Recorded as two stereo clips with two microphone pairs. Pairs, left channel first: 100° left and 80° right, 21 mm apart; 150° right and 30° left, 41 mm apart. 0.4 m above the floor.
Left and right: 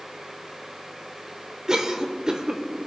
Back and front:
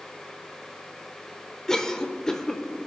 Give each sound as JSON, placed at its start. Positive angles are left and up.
{"t": 1.7, "sound": "a cough", "azimuth_deg": -95, "distance_m": 0.9}